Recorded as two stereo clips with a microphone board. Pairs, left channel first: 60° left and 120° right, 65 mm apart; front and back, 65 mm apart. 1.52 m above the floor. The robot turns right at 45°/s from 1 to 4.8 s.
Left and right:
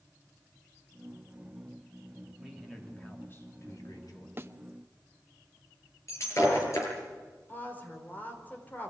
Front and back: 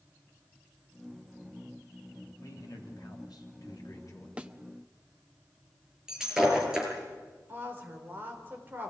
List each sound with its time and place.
2.4 s a man speaking: 40° right, 3.5 m; by 4.3 s 45° left, 3.5 m
4.4 s a thud: 125° right, 1.0 m; by 4.5 s 115° right, 1.0 m
6.1 s breaking glass: 100° left, 6.5 m
7.5 s a woman speaking: 120° left, 5 m